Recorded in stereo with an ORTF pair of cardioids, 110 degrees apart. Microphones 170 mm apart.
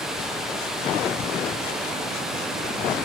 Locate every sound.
0.0 s running water: 5° right, 0.7 m